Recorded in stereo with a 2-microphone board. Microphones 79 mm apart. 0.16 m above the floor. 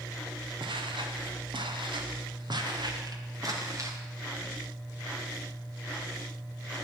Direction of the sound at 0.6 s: 80° right.